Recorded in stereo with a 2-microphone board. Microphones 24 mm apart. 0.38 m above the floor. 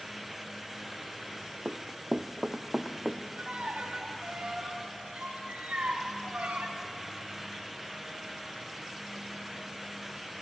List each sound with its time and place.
1.6 s running footsteps: 55° right (ahead or behind), 0.9 m; by 3.2 s 10° right (ahead or behind), 1.6 m
3.4 s a violin: 65° right (ahead or behind), 3 m